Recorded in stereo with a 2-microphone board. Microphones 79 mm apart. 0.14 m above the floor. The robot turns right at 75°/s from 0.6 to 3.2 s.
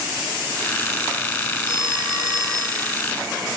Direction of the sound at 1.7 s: 110° right.